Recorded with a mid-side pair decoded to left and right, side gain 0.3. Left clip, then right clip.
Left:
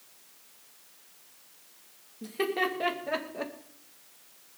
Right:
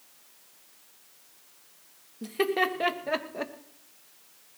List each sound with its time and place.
2.2 s laughter: 45° right, 2.5 m; by 3.5 s 35° right, 1.8 m